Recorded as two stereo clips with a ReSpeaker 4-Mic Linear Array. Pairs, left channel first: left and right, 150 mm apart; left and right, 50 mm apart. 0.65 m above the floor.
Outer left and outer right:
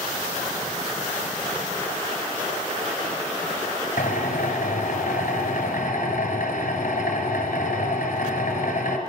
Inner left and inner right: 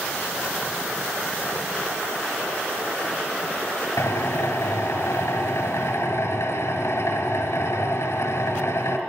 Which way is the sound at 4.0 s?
85° left.